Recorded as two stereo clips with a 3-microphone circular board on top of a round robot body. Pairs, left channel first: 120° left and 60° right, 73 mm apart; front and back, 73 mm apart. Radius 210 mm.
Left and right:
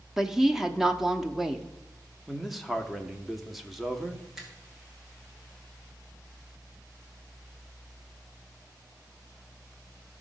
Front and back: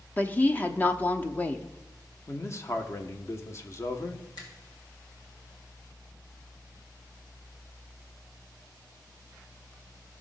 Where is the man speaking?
30° left, 1.4 m.